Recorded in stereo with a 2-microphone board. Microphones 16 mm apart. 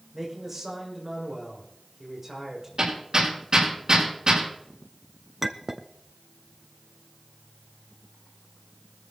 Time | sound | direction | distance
0.1 | a man speaking | 15° right (ahead or behind) | 6.5 m
2.8 | hammering | 45° right (ahead or behind) | 6.5 m
5.4 | a clink | 20° right (ahead or behind) | 0.7 m